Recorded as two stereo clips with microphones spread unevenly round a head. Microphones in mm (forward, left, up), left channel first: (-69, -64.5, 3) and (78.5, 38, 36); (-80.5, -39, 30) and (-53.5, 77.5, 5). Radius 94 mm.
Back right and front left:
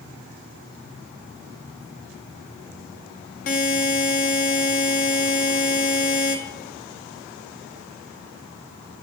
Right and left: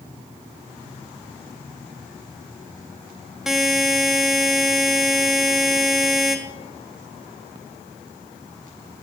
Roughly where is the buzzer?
Behind.